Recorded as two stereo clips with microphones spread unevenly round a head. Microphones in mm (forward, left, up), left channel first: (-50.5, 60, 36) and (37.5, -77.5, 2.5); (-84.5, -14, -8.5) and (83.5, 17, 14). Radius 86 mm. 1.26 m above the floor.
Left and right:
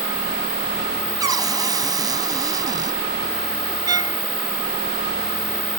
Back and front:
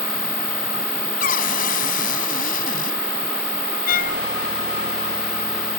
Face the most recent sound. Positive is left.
turn(degrees=-130)